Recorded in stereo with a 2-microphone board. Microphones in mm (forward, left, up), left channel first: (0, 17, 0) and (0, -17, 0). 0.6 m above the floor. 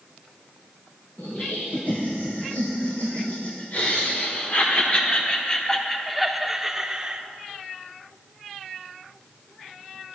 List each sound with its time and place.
1.2 s laughter: 75° left (ahead or behind), 3 m; by 7.2 s 25° right (ahead or behind), 1.3 m